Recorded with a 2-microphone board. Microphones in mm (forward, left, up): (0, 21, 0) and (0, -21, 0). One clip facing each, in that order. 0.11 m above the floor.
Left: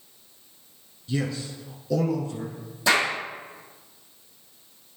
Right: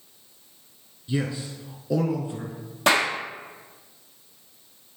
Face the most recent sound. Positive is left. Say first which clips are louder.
# right 1 dB
turn(degrees=-70)  # may be behind; listen again after turning